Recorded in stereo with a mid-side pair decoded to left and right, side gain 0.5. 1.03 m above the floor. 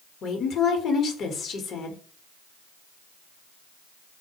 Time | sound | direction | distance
0.2 | a woman speaking | 60° left | 0.8 m